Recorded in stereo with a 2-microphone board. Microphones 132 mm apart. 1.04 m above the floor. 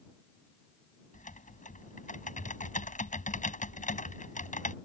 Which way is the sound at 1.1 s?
75° left (ahead or behind).